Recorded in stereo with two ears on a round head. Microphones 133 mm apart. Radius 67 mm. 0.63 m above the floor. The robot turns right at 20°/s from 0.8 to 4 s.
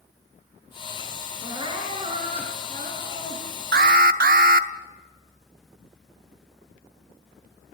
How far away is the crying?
About 5 m.